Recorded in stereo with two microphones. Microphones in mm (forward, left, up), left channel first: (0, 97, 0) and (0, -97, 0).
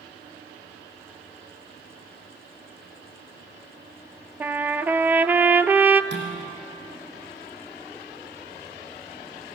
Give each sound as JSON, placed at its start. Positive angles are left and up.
{"t": 4.4, "sound": "a trumpet", "side_deg": -10, "distance_m": 0.5}
{"t": 6.1, "sound": "dishes clattering", "side_deg": -70, "distance_m": 4.0}